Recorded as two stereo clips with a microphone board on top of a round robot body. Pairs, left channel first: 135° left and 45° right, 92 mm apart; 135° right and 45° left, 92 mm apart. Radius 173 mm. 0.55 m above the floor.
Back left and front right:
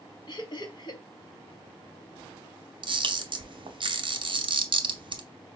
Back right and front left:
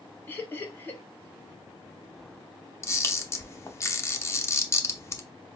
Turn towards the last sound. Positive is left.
turn(degrees=-75)